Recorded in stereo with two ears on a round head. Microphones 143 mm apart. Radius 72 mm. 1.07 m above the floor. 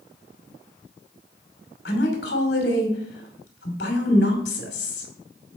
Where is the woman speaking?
75° left (ahead or behind), 2.5 m.